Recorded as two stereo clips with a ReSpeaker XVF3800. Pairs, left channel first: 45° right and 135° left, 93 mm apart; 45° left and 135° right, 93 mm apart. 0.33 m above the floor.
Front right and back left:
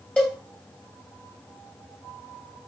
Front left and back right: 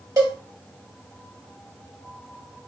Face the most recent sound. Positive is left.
turn(degrees=-115)